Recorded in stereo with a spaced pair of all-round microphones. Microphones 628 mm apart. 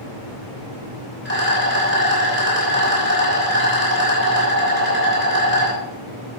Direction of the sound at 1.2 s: 15° left (ahead or behind).